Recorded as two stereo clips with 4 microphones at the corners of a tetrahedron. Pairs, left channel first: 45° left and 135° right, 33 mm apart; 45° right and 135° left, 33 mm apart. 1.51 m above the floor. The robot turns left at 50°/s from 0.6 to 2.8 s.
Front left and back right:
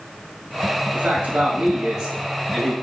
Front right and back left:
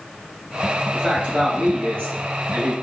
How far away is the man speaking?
About 1.0 m.